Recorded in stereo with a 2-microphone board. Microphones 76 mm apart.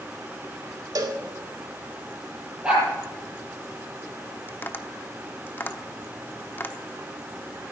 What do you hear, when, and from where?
0.9 s a cowbell: 55° right (ahead or behind), 1.7 m
2.6 s a dog barking: 15° right (ahead or behind), 7 m
4.5 s tapping: 30° left (ahead or behind), 0.8 m